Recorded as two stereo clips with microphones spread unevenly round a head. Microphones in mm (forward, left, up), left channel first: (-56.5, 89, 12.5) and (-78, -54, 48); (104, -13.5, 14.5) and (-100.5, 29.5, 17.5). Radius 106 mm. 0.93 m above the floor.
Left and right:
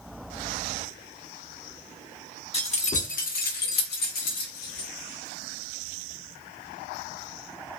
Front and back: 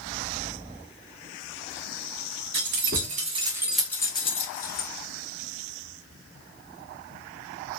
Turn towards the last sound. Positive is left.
turn(degrees=35)